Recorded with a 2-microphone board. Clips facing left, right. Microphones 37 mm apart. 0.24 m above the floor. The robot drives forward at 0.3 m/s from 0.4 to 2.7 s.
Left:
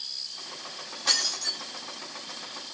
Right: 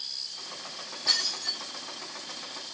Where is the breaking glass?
80° left, 1.8 m; by 1.6 s 75° left (ahead or behind), 1.8 m.